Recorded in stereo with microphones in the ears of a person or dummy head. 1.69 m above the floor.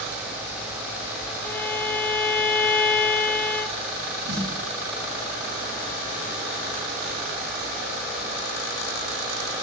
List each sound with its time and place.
1.4 s a violin: 5° left (ahead or behind), 0.6 m
4.3 s a snare drum: 75° right (ahead or behind), 5.5 m